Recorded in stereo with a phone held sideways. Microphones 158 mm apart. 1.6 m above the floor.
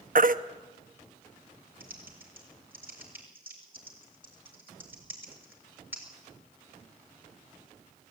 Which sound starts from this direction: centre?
Typing on a keyboard, at 1.8 s.